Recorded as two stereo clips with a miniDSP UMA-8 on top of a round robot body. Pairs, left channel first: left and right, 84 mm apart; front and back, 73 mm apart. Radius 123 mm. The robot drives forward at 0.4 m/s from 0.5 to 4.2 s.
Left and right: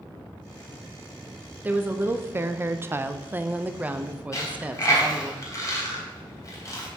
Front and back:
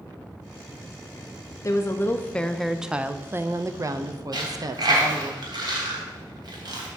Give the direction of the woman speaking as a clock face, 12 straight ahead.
1 o'clock.